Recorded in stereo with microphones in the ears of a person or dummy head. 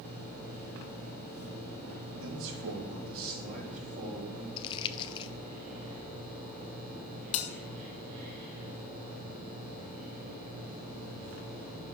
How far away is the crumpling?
About 0.6 m.